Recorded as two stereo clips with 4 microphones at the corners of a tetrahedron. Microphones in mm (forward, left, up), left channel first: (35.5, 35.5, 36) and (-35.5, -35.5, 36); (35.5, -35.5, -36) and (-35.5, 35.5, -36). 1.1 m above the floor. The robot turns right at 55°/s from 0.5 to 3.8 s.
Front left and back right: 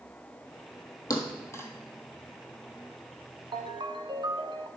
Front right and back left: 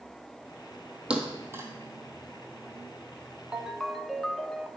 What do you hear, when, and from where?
1.1 s a thud: 60° left, 1.4 m; by 1.7 s 95° left, 1.4 m
3.5 s a ringtone: 145° right, 0.6 m; by 4.7 s 130° right, 0.6 m